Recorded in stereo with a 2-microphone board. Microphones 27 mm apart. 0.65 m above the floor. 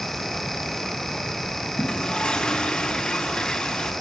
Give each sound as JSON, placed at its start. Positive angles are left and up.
{"t": 1.8, "sound": "a toilet flushing", "side_deg": 35, "distance_m": 6.0}